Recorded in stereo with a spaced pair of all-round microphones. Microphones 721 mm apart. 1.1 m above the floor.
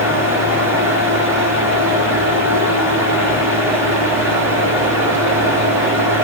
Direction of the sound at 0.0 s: 5° right (ahead or behind).